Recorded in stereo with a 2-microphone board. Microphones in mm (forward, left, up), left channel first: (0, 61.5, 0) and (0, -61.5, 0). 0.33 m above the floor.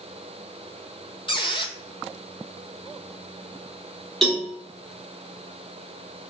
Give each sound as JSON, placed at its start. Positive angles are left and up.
{"t": 1.3, "sound": "a squeak", "side_deg": 45, "distance_m": 0.6}
{"t": 4.2, "sound": "a cowbell", "side_deg": 0, "distance_m": 2.5}